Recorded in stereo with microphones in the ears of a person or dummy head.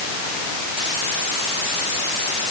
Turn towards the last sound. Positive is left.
No sound to turn to.